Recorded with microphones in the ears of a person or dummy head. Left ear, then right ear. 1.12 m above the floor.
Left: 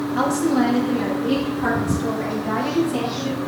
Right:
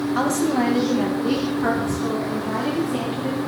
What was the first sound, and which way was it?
A woman speaking, 55° right (ahead or behind).